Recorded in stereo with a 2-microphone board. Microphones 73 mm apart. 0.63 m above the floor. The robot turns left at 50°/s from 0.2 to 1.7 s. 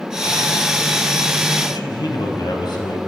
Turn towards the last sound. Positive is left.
turn(degrees=80)